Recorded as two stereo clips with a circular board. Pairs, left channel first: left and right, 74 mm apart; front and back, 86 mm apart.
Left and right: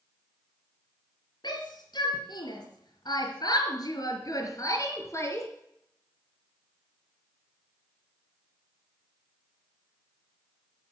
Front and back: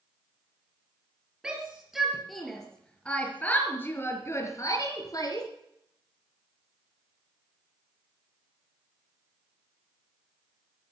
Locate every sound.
1.4 s a shout: 100° left, 4.5 m; by 5.5 s 40° left, 4 m